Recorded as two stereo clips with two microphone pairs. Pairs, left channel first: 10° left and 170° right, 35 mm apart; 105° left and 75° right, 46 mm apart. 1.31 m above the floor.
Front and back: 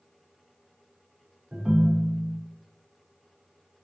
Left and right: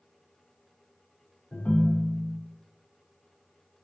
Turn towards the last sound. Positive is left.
turn(degrees=130)